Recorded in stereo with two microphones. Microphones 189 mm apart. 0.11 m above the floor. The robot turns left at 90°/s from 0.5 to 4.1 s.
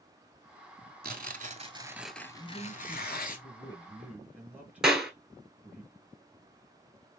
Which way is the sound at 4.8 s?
5° right (ahead or behind).